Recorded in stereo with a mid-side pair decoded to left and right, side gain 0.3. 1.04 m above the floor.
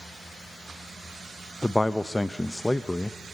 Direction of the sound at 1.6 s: 25° left.